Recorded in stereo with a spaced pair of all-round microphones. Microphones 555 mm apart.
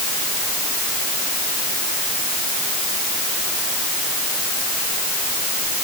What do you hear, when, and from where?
Only background noise.